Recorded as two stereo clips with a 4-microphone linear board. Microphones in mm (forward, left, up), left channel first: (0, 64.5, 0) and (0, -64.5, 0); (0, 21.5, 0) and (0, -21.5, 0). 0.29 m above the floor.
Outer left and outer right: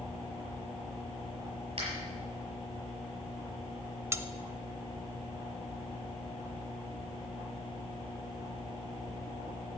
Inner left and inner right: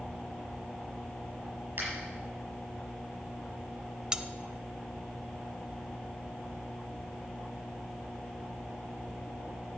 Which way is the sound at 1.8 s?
55° right (ahead or behind).